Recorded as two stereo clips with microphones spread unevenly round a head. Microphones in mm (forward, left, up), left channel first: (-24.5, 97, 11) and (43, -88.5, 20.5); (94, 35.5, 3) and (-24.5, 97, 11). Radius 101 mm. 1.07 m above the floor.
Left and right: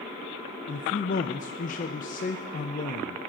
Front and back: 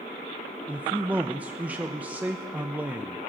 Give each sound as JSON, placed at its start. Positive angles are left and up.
{"t": 0.7, "sound": "a man speaking", "azimuth_deg": 75, "distance_m": 0.6}